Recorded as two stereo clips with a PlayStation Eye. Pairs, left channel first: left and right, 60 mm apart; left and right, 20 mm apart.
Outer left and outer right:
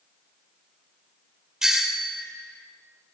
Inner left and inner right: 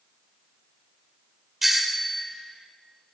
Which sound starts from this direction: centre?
A doorbell, at 1.6 s.